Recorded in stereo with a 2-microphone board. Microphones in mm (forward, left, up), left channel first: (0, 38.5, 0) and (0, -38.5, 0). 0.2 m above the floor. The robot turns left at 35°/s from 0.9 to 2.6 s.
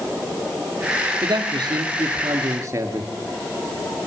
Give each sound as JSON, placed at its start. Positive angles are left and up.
{"t": 1.2, "sound": "a man speaking", "azimuth_deg": -90, "distance_m": 3.0}